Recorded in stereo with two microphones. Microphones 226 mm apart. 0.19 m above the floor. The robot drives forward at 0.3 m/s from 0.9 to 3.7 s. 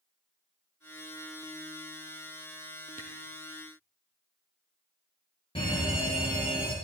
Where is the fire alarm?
25° left (ahead or behind), 5 m.